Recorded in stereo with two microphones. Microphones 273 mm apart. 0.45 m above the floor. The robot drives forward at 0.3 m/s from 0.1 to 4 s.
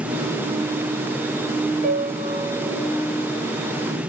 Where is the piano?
35° right (ahead or behind), 1.5 m; by 2.9 s 30° right (ahead or behind), 1.7 m.